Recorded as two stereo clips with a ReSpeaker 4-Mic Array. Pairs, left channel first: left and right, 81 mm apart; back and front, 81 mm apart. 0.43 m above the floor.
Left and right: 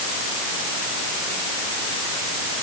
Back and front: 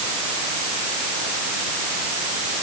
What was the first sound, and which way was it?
Only background noise.